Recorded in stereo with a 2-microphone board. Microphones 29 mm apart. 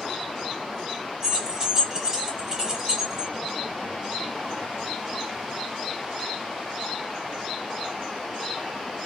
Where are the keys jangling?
20° right (ahead or behind), 1.2 m.